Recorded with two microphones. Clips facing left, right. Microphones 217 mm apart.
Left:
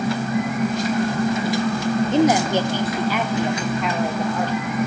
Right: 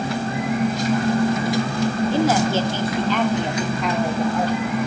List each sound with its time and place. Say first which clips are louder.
2.1 s a woman speaking: left 3 dB; 20° left (ahead or behind), 1.1 m; by 4.5 s 5° right (ahead or behind), 1.7 m